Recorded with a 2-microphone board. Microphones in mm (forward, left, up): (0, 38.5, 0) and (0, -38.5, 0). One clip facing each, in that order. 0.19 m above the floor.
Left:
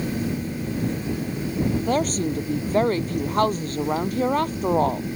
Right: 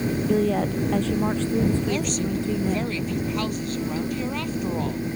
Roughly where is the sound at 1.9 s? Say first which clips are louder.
Left 3 dB; left.